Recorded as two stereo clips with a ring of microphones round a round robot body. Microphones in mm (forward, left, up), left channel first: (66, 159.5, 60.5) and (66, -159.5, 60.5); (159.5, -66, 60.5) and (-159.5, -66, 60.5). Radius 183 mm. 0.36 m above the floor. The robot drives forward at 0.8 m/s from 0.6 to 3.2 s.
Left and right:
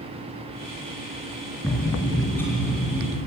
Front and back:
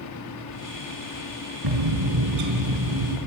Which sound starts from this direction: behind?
A bird, at 1.6 s.